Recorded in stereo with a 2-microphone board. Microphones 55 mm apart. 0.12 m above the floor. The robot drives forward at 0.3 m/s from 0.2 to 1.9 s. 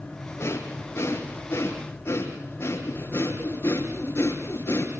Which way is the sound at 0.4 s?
50° left (ahead or behind).